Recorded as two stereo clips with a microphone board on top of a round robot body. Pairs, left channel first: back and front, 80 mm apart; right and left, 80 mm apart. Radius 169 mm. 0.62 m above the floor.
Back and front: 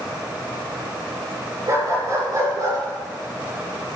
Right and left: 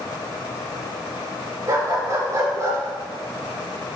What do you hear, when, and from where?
1.7 s a dog barking: 45° left, 5 m; by 2.8 s 35° left, 6 m